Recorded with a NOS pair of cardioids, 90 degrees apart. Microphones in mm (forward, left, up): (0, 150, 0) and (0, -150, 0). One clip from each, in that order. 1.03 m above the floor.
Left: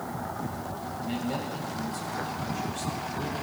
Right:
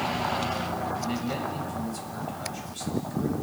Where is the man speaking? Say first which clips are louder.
Right 2 dB; 10° right, 7 m.